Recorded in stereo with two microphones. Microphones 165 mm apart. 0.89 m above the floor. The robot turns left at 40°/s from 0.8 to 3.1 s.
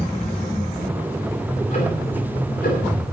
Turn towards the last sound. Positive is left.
turn(degrees=80)